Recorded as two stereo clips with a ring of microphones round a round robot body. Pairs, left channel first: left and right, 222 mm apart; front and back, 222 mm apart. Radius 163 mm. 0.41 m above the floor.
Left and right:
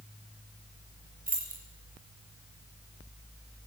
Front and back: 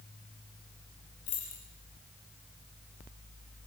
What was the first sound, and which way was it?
Keys jangling, 40° right.